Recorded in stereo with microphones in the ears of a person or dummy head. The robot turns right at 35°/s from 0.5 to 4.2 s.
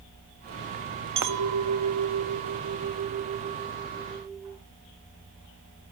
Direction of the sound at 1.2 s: 120° right.